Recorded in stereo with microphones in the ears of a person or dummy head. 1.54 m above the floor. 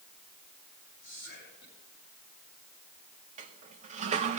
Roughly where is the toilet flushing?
Right.